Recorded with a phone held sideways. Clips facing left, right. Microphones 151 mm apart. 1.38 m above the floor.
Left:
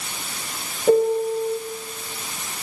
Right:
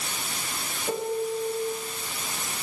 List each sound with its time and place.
0.9 s a piano: 55° left (ahead or behind), 4 m